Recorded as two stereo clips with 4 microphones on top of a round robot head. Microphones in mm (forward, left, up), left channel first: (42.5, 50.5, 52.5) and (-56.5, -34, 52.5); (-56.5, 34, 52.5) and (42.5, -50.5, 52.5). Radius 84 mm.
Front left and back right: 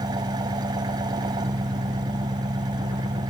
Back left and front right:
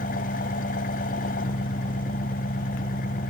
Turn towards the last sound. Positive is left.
turn(degrees=160)